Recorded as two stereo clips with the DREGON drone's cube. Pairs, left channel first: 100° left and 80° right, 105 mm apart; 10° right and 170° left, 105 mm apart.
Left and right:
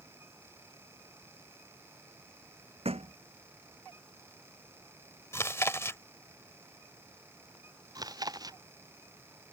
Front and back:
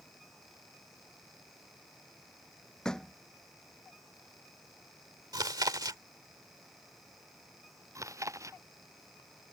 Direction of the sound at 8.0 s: 130° right.